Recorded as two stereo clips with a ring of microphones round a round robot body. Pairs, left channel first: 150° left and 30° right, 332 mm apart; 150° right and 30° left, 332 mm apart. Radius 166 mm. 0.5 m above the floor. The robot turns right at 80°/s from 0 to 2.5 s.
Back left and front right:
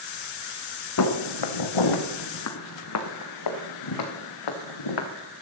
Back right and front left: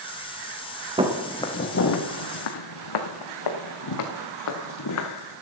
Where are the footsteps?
105° left, 2.5 m; by 5.1 s 165° left, 3 m.